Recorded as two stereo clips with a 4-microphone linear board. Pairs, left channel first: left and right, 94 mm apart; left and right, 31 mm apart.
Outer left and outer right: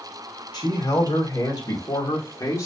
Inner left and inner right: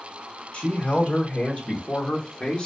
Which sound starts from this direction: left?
A man speaking, at 0.5 s.